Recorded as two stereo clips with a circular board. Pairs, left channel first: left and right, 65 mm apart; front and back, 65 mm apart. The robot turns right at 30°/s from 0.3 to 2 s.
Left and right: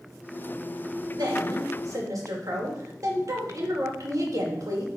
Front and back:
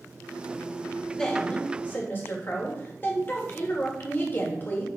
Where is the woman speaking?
85° right, 2 m; by 4.9 s 55° right, 2 m.